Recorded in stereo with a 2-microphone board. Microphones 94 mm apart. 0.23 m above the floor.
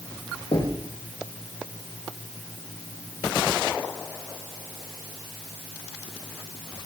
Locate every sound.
0.5 s knocking: 70° left (ahead or behind), 7 m